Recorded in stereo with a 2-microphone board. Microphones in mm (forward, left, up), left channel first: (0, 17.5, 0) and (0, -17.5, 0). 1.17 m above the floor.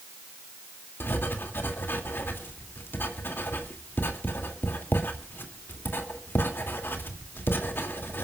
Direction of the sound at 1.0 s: 85° left.